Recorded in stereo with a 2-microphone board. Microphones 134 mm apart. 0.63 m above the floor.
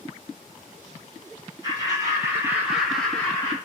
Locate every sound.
1.6 s laughter: 25° right (ahead or behind), 1.3 m; by 3.5 s 20° left (ahead or behind), 0.8 m